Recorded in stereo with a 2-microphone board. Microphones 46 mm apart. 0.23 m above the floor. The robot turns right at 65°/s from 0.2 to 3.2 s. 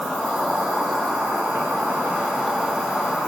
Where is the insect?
170° right, 4.5 m; by 3.3 s 25° left, 4.5 m.